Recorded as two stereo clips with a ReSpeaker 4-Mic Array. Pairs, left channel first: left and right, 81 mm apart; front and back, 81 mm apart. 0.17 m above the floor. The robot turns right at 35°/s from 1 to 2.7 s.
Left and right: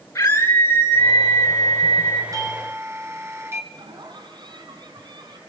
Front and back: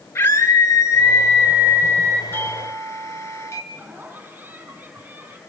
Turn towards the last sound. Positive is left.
turn(degrees=-110)